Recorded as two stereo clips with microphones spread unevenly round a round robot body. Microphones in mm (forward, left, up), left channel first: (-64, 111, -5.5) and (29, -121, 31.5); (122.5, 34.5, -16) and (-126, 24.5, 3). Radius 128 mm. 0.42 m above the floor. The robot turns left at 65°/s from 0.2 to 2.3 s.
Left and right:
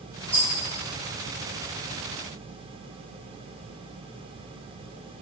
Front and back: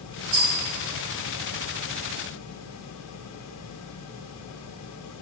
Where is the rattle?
170° right, 1.2 m; by 0.5 s straight behind, 1.2 m.